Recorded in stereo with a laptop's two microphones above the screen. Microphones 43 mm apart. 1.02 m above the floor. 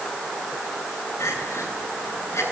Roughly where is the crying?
Left.